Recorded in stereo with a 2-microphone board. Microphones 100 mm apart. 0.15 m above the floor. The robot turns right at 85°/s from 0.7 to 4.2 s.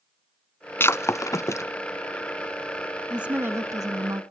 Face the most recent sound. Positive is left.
turn(degrees=-80)